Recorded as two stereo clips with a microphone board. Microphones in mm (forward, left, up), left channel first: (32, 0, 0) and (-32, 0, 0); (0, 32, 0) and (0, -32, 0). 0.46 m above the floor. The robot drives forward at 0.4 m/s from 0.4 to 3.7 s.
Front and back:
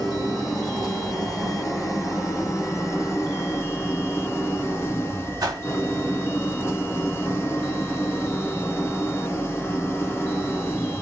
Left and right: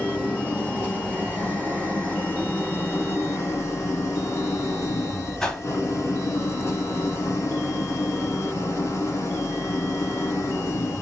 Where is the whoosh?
170° left, 0.8 m.